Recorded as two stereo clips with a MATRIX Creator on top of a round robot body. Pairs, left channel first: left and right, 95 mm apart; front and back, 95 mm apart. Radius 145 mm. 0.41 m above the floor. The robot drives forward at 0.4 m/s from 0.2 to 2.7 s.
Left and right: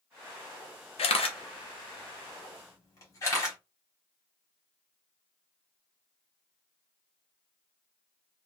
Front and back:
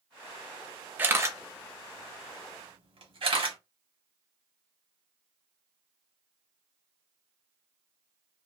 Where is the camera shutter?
105° left, 0.5 m; by 3.6 s 150° left, 1.0 m.